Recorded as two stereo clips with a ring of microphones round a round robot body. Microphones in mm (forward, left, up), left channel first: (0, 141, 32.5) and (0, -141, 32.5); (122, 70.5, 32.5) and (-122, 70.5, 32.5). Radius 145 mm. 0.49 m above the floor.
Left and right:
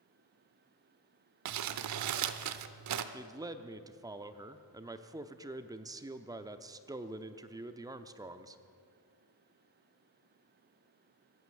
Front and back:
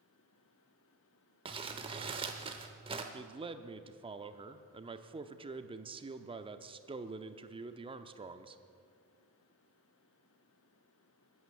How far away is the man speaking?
About 0.7 m.